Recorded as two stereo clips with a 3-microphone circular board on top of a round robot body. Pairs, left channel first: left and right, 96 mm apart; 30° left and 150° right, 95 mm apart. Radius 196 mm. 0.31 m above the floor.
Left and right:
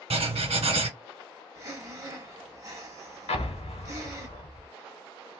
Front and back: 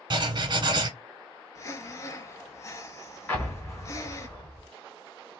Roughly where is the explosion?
Left.